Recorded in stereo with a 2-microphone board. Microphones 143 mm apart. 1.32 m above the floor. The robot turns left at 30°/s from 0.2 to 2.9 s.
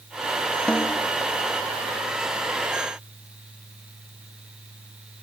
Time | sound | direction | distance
0.7 | a snare drum | 5° left (ahead or behind) | ?